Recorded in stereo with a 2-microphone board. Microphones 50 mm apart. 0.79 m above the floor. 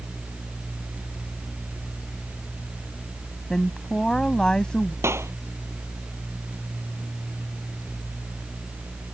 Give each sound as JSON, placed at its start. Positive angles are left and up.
{"t": 3.5, "sound": "a woman speaking", "side_deg": 15}
{"t": 5.0, "sound": "a clap", "side_deg": -65}